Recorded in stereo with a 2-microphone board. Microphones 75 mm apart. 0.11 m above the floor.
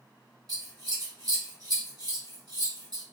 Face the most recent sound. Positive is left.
turn(degrees=-60)  # may be behind; listen again after turning